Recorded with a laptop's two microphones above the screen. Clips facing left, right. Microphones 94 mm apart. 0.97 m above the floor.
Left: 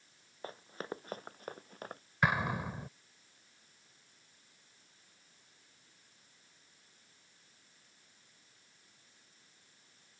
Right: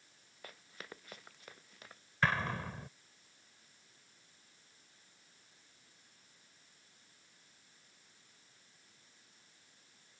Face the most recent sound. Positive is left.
turn(degrees=15)  # may be behind; listen again after turning